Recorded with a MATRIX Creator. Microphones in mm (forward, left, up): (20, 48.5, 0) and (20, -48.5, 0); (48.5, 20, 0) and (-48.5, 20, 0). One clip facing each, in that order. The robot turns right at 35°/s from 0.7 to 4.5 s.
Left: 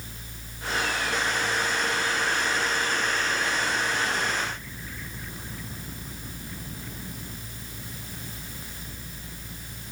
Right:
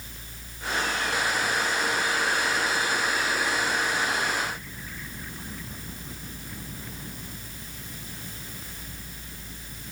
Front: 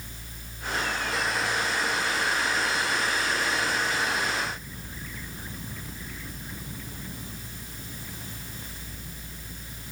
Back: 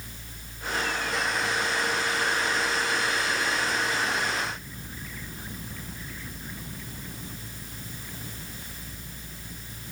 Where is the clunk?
No clunk in this recording.